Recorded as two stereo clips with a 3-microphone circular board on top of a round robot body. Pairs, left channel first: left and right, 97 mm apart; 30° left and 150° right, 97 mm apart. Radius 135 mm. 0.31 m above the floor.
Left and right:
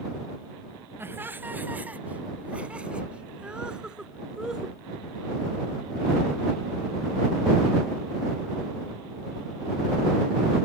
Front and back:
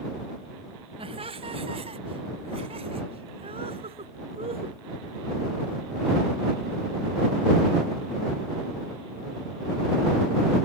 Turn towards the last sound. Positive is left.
turn(degrees=-175)